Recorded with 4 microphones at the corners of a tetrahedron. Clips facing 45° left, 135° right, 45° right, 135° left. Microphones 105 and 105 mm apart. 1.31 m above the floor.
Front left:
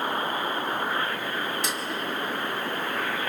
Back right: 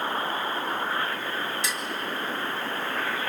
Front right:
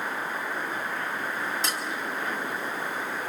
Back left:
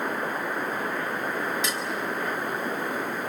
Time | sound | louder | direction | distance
1.6 | dishes clattering | front left 1 dB, back left 1 dB | 10° left | 4 m